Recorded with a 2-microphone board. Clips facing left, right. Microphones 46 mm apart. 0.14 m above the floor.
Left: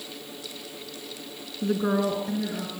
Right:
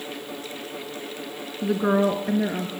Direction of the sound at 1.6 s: 5° right (ahead or behind).